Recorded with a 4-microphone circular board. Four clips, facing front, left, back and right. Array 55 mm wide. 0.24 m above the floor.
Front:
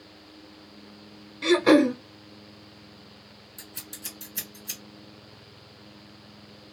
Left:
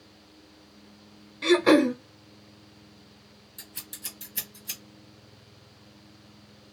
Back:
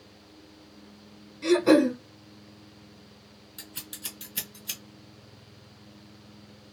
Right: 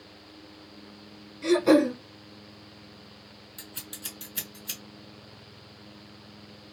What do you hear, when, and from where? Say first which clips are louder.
1.4 s throat clearing: left 1 dB, front 1 dB; 50° left, 0.7 m
3.6 s scissors: right 2 dB, back 1 dB; 155° right, 2 m